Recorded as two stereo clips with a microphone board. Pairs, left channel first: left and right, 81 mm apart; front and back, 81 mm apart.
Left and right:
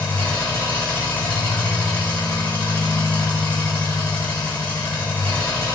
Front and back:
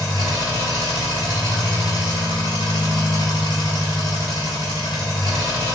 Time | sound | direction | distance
0.0 | an engine running | 20° left | 1.5 m